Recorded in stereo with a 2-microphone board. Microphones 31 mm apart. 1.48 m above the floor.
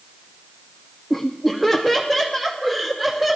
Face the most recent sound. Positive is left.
turn(degrees=-15)  # may be behind; listen again after turning